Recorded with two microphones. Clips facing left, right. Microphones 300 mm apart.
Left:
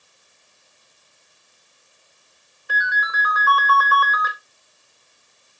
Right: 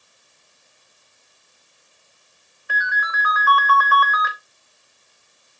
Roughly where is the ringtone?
Left.